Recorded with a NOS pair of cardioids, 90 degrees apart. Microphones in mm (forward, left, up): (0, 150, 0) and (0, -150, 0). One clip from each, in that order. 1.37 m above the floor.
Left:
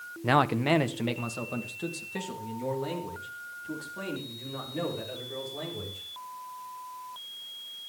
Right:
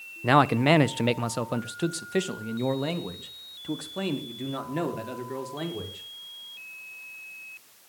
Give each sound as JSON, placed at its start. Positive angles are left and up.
{"t": 0.2, "sound": "a man speaking", "azimuth_deg": -15, "distance_m": 0.7}